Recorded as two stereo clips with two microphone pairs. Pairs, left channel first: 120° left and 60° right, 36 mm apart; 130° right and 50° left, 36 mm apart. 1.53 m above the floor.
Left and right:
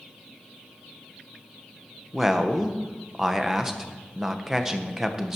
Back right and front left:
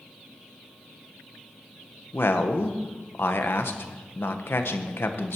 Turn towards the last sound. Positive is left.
turn(degrees=-140)